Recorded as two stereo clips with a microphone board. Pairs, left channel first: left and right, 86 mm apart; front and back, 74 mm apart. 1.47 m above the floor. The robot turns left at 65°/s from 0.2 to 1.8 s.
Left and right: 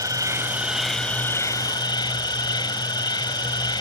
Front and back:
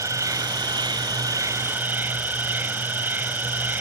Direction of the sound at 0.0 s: 135° right.